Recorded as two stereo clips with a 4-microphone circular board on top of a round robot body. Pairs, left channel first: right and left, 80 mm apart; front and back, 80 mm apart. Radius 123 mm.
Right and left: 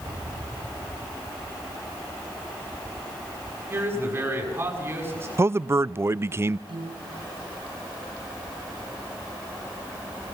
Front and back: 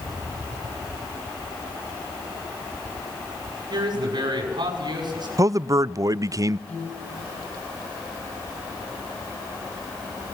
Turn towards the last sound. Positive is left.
turn(degrees=70)